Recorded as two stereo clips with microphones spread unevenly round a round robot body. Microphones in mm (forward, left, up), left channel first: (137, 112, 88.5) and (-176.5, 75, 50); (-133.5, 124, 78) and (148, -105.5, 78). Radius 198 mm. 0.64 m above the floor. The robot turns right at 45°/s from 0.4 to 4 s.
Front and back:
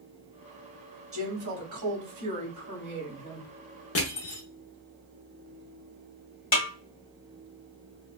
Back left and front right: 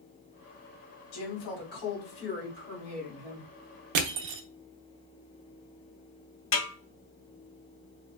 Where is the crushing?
50° right, 0.7 m; by 4.4 s 45° right, 0.7 m.